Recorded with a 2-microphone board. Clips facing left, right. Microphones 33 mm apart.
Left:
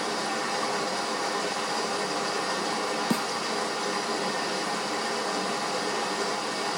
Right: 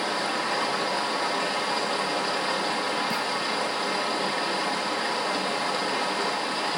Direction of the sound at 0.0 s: 45° right (ahead or behind).